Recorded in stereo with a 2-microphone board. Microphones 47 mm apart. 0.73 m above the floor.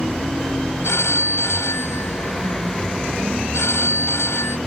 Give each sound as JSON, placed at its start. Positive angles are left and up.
{"t": 0.8, "sound": "a phone ringing", "side_deg": 90}